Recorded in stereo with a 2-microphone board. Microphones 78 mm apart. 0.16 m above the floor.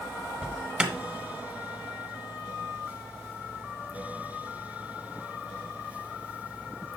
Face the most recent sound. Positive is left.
turn(degrees=-15)  # may be behind; listen again after turning